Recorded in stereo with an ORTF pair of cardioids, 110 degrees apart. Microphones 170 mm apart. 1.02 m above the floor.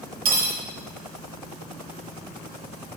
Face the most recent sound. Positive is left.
turn(degrees=-60)